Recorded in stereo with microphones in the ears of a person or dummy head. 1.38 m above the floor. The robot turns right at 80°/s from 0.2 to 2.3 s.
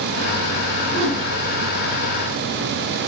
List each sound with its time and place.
0.9 s a whoosh: 100° right, 3.5 m; by 1.3 s 70° right, 3.5 m